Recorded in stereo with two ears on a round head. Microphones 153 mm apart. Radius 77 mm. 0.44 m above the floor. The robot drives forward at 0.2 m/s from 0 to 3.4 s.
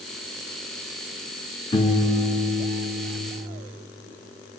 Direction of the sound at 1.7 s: 30° left (ahead or behind).